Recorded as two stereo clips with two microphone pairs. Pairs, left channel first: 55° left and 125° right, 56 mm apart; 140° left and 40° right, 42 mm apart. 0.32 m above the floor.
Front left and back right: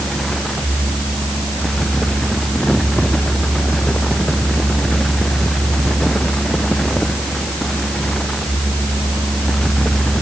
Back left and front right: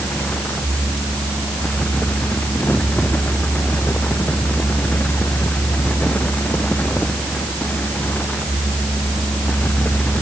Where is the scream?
No scream in this recording.